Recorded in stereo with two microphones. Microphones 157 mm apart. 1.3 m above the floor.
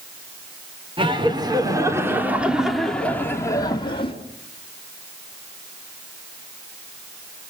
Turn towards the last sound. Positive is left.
turn(degrees=35)  # may be behind; listen again after turning